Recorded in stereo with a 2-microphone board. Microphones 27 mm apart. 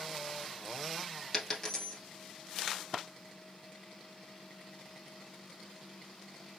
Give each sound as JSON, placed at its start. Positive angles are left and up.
{"t": 1.3, "sound": "a dropped coin", "side_deg": 15, "distance_m": 1.3}